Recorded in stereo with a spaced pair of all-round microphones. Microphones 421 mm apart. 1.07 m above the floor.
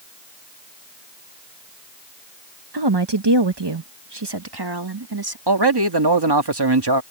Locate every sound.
2.7 s a woman speaking: 65° right (ahead or behind); by 5.4 s 55° right (ahead or behind)
5.5 s a man speaking: 65° right (ahead or behind)